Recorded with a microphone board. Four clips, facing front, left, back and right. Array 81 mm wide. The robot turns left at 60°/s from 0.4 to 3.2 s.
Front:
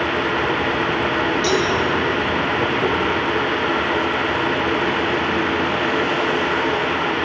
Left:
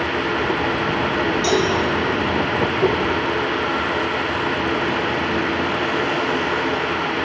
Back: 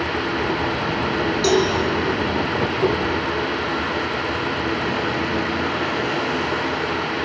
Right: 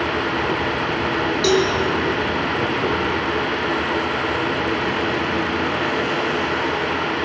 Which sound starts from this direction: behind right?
A cowbell, at 1.4 s.